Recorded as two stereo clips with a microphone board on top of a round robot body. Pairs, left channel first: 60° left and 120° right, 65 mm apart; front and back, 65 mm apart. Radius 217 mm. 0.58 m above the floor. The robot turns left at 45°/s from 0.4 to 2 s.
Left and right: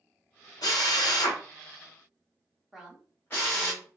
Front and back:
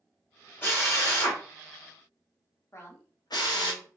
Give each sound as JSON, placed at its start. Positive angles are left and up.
{"t": 0.6, "sound": "a drill", "azimuth_deg": 60, "distance_m": 1.0}
{"t": 2.7, "sound": "a woman speaking", "azimuth_deg": -40, "distance_m": 1.4}